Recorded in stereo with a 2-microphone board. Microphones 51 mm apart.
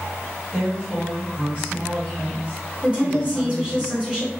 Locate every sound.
0.5 s a woman speaking: 30° right (ahead or behind), 1.4 m
2.8 s a woman speaking: 20° right (ahead or behind), 1.3 m